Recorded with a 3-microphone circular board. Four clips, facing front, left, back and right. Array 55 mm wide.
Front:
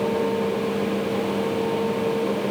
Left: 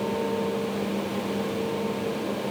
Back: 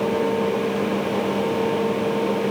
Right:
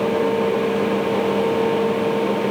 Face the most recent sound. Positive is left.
No sound to turn to.